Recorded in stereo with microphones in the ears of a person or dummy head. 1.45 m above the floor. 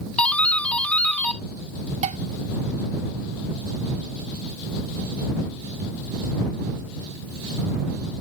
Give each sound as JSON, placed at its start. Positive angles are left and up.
{"t": 0.2, "sound": "a doorbell", "side_deg": 15}
{"t": 2.0, "sound": "dishes clattering", "side_deg": -30}